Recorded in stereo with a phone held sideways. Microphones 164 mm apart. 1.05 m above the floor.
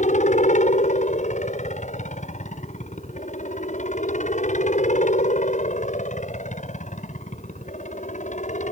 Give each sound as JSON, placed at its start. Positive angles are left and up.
{"t": 0.0, "sound": "a helicopter", "side_deg": 50}